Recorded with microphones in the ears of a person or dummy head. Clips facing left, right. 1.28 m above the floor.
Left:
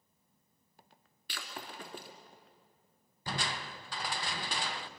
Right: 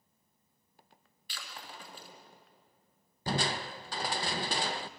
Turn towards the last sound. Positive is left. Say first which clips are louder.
# right 6 dB
turn(degrees=-35)  # may be behind; listen again after turning